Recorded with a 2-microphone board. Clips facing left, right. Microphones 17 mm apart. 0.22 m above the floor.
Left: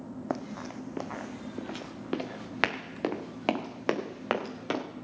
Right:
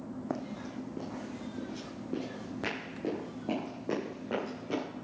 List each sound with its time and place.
0.3 s running footsteps: 20° left (ahead or behind), 0.6 m; by 4.8 s 60° left (ahead or behind), 2.5 m